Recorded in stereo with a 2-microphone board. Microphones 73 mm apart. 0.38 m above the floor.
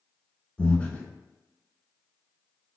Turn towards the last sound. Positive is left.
turn(degrees=20)  # may be behind; listen again after turning